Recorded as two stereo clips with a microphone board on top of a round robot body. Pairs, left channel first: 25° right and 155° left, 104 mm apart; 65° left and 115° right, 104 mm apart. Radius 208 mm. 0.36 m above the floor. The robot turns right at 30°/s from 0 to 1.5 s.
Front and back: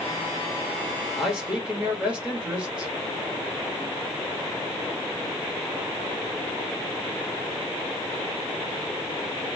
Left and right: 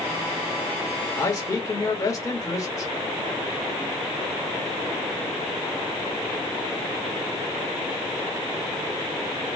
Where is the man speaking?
75° left, 1.6 m; by 2.9 s 85° left, 1.6 m.